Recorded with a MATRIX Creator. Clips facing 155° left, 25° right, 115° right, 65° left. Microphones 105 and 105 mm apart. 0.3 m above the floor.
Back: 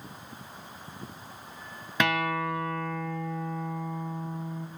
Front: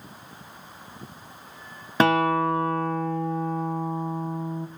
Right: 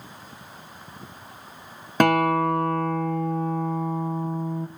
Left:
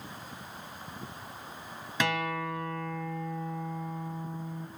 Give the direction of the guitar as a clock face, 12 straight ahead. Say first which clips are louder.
Front 7 dB, right 12 dB; 3 o'clock.